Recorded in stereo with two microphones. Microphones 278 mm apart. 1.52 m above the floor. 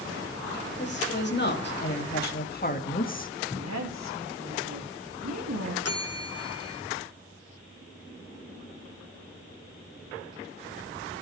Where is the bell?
65° left (ahead or behind), 1.4 m.